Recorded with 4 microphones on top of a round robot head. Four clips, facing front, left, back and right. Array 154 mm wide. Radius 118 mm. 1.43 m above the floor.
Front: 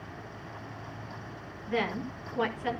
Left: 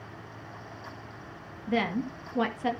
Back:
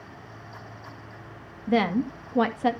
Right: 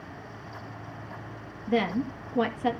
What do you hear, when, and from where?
1.7 s a woman speaking: 175° right, 2 m